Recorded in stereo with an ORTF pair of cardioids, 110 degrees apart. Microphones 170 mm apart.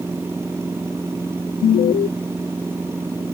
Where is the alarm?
55° left.